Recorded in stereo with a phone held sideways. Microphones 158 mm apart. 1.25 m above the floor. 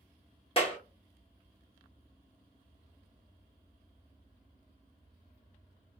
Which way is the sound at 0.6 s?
35° left (ahead or behind).